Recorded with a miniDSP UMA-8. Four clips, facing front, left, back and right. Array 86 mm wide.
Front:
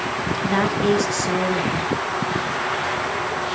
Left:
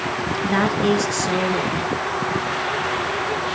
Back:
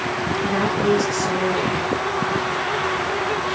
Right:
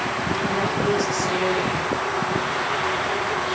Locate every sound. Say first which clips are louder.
0.4 s a woman speaking: left 5 dB, front 1 dB; 60° left, 2 m